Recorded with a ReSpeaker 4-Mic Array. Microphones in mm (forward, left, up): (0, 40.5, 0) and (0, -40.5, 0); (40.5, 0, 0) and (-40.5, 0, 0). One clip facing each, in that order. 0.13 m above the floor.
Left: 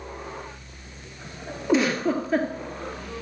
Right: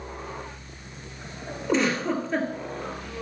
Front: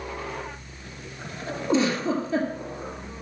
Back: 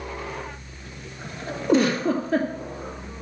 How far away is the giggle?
About 2 m.